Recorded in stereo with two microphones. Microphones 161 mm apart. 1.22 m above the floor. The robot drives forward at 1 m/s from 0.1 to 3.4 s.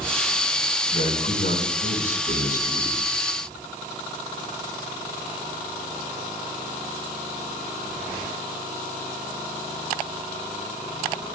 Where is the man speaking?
75° left (ahead or behind), 5.5 m; by 3.0 s 55° left (ahead or behind), 6.5 m.